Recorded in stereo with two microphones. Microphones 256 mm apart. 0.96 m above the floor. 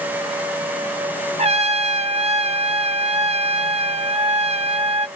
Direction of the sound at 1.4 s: 25° right (ahead or behind).